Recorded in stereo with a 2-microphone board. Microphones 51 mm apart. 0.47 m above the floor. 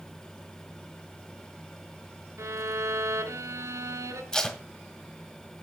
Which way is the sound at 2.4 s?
80° right.